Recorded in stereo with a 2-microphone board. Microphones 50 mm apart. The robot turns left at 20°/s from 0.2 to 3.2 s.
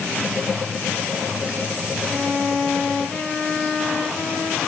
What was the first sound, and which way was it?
A violin, 5° right (ahead or behind).